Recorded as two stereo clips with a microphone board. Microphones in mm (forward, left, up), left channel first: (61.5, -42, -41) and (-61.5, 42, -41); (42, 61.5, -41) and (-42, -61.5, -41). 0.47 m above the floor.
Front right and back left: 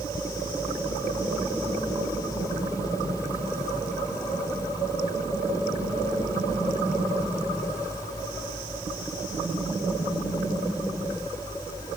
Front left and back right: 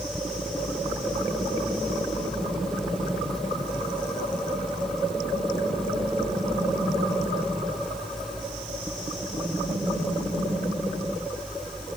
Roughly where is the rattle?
No rattle in this recording.